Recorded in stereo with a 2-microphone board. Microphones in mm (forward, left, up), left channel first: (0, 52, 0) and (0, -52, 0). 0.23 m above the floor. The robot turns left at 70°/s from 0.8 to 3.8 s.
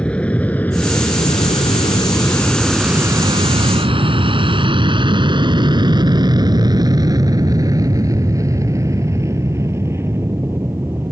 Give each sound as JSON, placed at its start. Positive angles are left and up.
{"t": 0.0, "sound": "an aircraft", "side_deg": 10}